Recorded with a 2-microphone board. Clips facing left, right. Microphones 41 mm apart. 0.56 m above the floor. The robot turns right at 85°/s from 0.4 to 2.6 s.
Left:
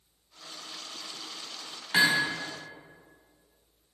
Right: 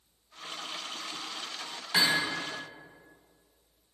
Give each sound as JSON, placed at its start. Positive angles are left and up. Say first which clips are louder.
{"t": 1.9, "sound": "hammering", "louder": "left 3 dB", "azimuth_deg": 150, "distance_m": 2.0}